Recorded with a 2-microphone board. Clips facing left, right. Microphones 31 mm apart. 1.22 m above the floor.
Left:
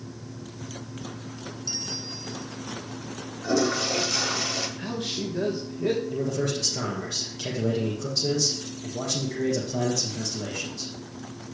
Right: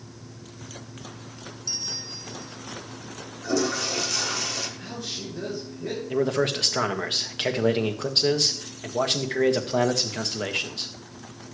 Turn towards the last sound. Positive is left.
turn(degrees=-55)  # may be behind; listen again after turning